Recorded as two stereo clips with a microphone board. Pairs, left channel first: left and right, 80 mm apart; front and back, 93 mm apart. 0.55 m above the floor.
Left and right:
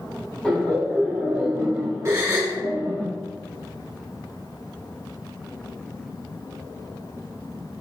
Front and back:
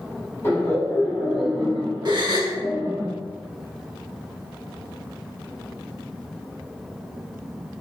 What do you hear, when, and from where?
0.4 s laughter: 20° left, 1.1 m; by 3.0 s 145° right, 1.2 m
2.0 s a gasp: 140° right, 0.7 m